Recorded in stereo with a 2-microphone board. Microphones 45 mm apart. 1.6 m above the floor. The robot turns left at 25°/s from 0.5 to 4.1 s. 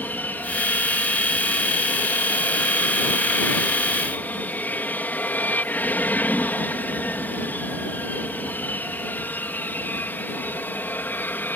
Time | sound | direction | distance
0.0 | an aircraft | 45° left (ahead or behind) | ?